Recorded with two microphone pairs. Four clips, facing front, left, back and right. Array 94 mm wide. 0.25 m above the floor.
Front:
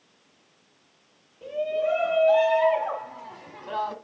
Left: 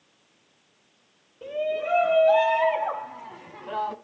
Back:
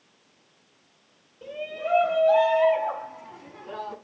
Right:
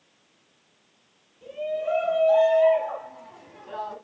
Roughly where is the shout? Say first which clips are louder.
Left 1 dB, front 6 dB; left.